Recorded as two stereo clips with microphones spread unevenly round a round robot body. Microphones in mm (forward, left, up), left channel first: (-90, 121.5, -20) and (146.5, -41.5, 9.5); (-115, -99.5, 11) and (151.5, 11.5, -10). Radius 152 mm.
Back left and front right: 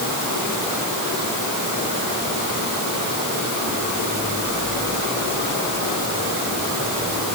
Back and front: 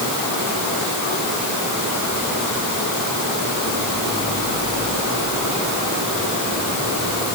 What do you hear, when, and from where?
Only background noise.